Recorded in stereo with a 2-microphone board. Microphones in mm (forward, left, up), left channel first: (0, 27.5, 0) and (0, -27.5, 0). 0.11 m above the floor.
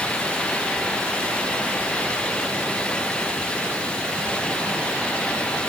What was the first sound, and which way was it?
Only background noise.